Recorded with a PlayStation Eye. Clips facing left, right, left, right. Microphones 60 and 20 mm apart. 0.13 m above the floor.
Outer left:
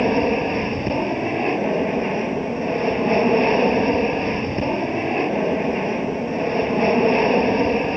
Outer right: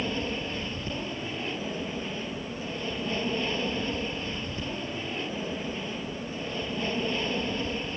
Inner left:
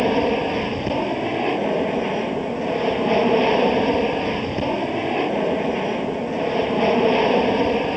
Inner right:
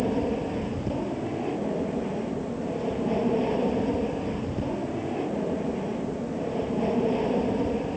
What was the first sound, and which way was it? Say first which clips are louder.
An aircraft: outer left 13 dB, inner left 8 dB; 50° left (ahead or behind).